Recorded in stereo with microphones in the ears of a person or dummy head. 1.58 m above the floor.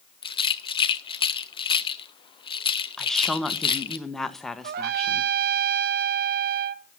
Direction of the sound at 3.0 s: Centre (ahead or behind).